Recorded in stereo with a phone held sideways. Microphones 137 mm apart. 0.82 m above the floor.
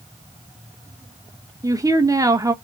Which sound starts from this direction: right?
A woman speaking, at 1.6 s.